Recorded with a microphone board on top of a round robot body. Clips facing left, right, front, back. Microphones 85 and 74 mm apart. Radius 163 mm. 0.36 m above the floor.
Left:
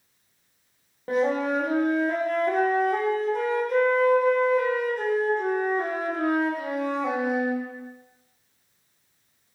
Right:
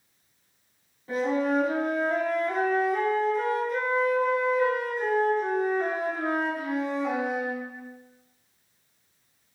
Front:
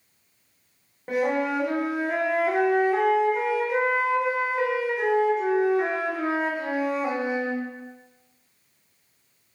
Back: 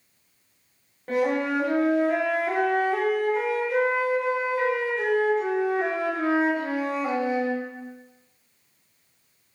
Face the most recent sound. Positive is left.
turn(degrees=75)